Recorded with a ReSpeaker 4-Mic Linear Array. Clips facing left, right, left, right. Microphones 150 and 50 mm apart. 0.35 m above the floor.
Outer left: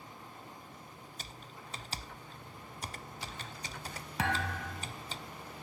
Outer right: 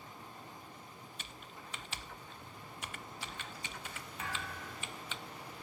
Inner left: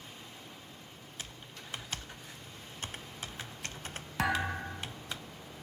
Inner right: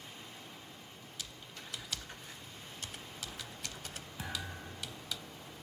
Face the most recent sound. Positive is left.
turn(degrees=85)